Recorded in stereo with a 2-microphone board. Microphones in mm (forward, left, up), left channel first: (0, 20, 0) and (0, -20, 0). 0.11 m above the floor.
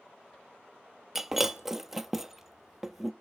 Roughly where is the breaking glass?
Centre.